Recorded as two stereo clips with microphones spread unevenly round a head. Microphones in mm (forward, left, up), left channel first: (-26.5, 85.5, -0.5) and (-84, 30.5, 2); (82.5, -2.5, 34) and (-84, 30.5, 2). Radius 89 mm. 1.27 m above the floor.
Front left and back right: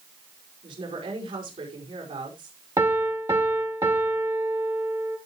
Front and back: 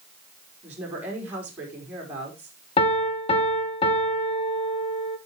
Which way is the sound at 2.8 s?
70° right.